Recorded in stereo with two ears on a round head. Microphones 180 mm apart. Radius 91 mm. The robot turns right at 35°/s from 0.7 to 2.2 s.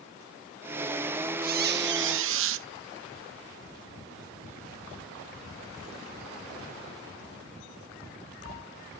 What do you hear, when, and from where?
1.4 s a squeak: 45° right (ahead or behind); by 2.7 s 75° right (ahead or behind)